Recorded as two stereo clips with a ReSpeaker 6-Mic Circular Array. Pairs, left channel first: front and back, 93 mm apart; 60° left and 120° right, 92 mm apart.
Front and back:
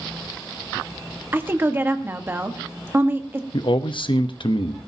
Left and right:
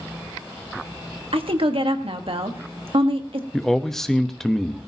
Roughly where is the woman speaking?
Behind right.